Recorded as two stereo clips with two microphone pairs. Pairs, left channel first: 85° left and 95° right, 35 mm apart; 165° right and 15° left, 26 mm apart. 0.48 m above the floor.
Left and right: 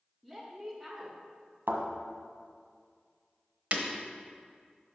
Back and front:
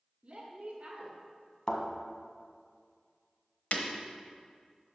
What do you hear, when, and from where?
0.2 s a woman speaking: 40° right, 1.0 m
1.7 s a thud: 105° right, 1.2 m
3.7 s breaking glass: 140° right, 1.0 m